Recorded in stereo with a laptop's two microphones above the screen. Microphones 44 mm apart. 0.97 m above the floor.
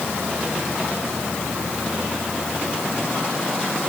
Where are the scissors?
I don't hear scissors.